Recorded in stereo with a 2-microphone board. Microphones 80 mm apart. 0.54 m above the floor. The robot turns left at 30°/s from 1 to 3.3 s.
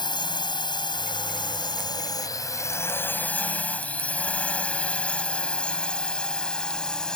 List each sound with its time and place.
0.0 s a drone: 70° left (ahead or behind); by 7.2 s 10° left (ahead or behind)